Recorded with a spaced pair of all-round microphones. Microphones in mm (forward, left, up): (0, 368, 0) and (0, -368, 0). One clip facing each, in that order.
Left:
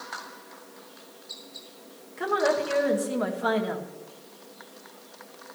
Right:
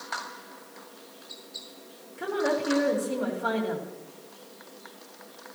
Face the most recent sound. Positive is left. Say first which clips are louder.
# left 2 dB
turn(degrees=85)